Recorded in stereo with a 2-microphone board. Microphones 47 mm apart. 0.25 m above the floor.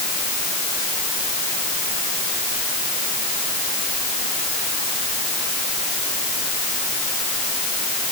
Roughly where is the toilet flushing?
I don't hear a toilet flushing.